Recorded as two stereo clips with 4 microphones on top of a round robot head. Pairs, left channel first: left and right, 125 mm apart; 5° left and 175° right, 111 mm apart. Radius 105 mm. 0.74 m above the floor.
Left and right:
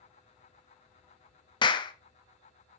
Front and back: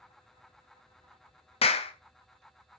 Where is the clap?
35° left, 0.5 m.